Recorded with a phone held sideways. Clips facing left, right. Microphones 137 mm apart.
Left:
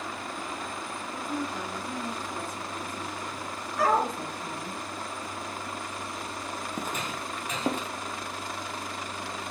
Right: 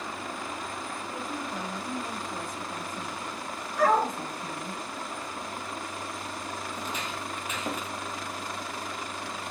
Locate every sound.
1.1 s a woman speaking: 15° right (ahead or behind), 5 m; by 4.8 s 25° right (ahead or behind), 3 m
3.8 s a dog barking: 5° left (ahead or behind), 3.5 m
6.7 s footsteps: 50° left (ahead or behind), 1.4 m; by 7.9 s 25° left (ahead or behind), 1.5 m